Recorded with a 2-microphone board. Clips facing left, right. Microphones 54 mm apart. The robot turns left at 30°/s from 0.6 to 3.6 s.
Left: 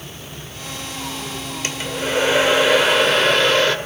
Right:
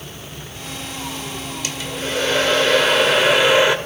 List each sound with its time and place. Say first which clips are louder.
1.6 s a hair dryer: left 3 dB; 40° left, 1.8 m; by 3.8 s 20° right, 1.8 m